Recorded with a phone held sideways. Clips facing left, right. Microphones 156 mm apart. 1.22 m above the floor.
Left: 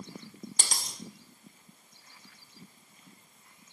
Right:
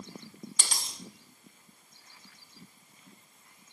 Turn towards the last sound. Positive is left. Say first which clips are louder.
# left 2 dB
turn(degrees=45)  # may be behind; listen again after turning